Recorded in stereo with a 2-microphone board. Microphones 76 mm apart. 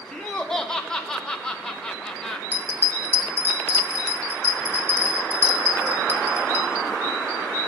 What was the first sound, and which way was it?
Laughter, 10° left (ahead or behind).